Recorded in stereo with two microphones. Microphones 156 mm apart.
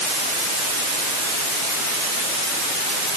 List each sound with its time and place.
Only background noise.